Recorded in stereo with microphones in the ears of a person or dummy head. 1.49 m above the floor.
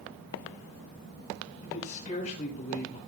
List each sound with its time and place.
1.6 s a man speaking: 40° left (ahead or behind), 6 m; by 3.0 s 45° left (ahead or behind), 5.5 m